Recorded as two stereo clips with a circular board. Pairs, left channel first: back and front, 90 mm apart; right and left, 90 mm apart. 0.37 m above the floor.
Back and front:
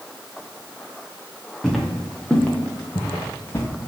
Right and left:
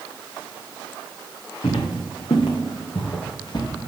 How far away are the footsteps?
About 3 m.